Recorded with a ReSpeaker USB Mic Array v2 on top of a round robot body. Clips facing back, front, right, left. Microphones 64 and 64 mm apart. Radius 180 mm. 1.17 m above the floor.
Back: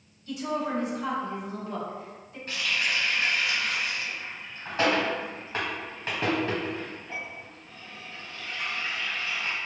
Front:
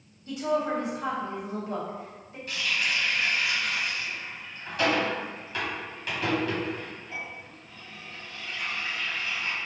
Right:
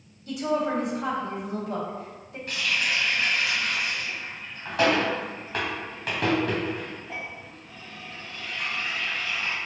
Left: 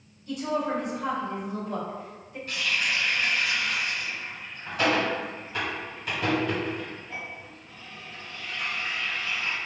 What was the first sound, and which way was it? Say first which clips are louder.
A woman speaking: front 3 dB, right 2 dB; 60° right.